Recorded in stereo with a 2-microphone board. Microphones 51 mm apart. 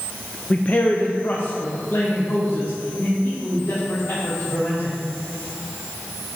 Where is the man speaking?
35° left (ahead or behind), 0.6 m; by 4.9 s 60° left (ahead or behind), 3 m.